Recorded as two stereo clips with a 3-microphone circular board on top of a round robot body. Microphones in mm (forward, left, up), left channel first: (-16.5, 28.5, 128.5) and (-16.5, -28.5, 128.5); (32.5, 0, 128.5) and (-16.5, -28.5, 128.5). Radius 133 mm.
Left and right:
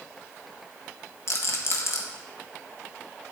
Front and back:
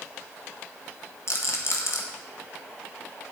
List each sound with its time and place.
1.3 s a rattle: 60° left, 1.4 m